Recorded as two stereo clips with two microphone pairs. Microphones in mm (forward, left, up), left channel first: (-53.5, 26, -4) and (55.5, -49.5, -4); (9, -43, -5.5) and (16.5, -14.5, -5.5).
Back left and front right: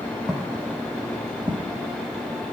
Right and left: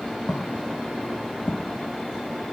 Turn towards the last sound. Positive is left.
turn(degrees=-70)